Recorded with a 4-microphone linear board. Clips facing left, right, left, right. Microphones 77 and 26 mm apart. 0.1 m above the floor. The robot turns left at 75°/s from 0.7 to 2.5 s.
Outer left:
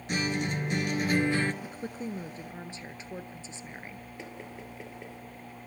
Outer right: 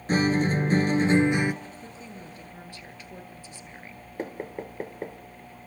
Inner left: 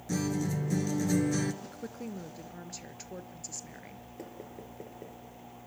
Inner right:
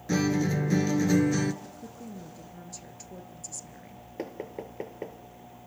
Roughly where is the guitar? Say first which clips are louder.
Outer right 8 dB, inner right 6 dB; right.